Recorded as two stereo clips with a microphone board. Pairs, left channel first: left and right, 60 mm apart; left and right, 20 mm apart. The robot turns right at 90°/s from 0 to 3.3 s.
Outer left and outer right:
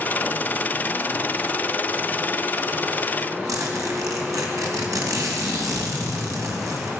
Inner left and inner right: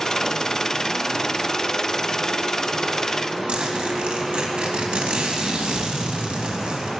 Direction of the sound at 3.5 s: 70° right (ahead or behind).